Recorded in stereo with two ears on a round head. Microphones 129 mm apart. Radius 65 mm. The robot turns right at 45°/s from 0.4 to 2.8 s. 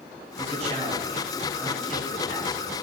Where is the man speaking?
60° right, 7 m; by 2.8 s 50° left, 7 m.